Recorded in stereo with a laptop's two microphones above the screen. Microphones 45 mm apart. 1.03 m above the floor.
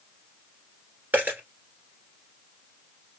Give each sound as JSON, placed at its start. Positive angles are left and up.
{"t": 1.1, "sound": "a dropped coin", "side_deg": -40, "distance_m": 1.9}